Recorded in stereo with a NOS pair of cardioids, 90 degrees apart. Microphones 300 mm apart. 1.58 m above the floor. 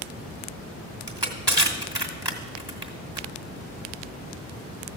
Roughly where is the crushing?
Ahead.